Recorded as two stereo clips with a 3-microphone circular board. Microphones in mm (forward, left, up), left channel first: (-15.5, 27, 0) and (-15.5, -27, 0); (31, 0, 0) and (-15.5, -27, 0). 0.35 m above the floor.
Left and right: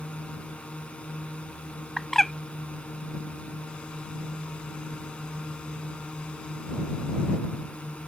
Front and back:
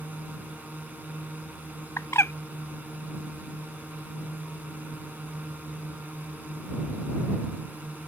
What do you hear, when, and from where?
0.0 s a drone: 155° left
2.0 s a bird: 5° left